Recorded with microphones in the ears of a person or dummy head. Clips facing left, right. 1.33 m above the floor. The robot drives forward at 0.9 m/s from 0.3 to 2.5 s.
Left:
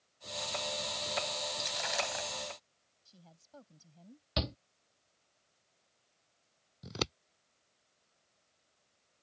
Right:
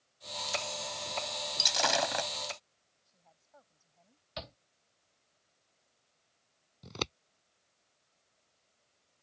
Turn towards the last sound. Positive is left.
turn(degrees=15)  # may be behind; listen again after turning